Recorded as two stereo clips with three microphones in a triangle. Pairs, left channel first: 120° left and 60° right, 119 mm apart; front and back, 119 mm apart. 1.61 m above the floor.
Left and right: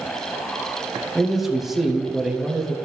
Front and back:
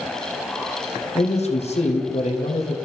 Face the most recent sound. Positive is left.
turn(degrees=30)